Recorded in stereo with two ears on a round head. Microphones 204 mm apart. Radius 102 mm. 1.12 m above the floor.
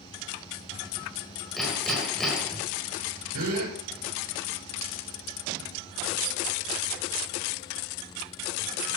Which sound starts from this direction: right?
A gasp, at 3.3 s.